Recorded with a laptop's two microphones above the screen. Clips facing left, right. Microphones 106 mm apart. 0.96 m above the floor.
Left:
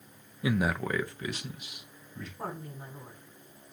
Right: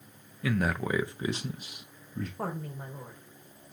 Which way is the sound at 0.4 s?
20° left (ahead or behind).